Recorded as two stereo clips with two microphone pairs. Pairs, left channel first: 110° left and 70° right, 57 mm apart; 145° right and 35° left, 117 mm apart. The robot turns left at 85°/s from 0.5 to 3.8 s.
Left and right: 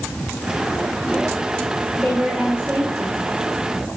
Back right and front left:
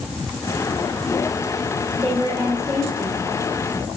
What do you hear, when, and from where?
1.9 s a woman speaking: 45° left, 2 m; by 3.2 s 60° right, 2 m